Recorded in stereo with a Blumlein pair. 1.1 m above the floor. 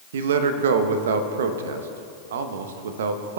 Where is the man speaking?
60° right, 0.9 m.